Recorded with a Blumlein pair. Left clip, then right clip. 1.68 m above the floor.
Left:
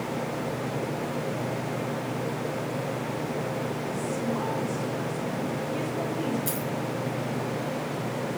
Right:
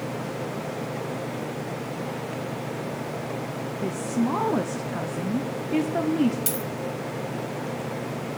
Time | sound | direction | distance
3.8 | a woman speaking | 45° right | 0.8 m
6.5 | a dropped coin | 55° right | 3 m